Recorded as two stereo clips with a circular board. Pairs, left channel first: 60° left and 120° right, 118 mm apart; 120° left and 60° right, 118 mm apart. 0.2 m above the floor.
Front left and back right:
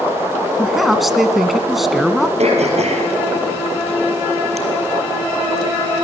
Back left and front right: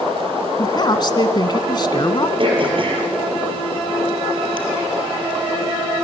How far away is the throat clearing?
About 5 m.